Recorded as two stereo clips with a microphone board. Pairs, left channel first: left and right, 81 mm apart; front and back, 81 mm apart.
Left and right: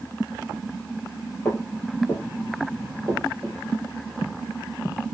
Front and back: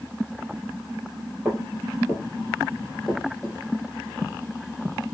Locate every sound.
1.4 s footsteps: 110° left, 1.8 m; by 3.6 s 90° right, 1.7 m